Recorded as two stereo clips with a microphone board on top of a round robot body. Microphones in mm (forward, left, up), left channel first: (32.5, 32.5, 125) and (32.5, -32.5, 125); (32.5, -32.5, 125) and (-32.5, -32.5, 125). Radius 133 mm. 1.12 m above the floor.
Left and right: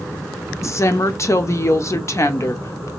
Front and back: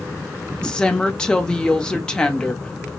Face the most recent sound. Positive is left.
turn(degrees=75)